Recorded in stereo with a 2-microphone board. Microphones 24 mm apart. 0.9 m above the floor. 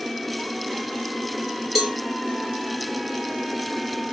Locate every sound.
1.8 s a cowbell: 5° right (ahead or behind), 2.5 m